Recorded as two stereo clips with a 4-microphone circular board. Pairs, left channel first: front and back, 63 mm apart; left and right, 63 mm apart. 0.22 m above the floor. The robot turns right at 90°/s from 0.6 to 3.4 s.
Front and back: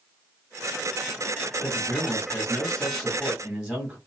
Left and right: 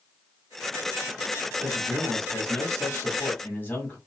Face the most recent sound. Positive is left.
turn(degrees=115)